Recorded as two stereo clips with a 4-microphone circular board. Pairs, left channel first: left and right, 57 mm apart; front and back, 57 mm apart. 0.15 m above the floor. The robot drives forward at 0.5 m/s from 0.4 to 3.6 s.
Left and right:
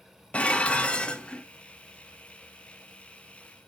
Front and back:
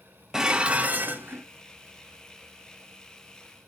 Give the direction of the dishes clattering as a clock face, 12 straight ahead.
8 o'clock.